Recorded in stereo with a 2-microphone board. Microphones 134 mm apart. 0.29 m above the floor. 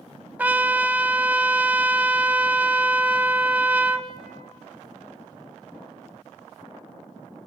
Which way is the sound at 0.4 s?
15° right (ahead or behind).